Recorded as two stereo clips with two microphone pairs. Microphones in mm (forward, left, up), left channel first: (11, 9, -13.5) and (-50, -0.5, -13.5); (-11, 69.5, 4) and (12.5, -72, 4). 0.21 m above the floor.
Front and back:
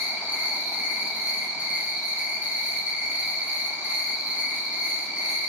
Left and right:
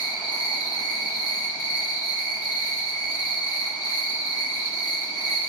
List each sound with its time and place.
0.0 s an insect: 150° left, 1.2 m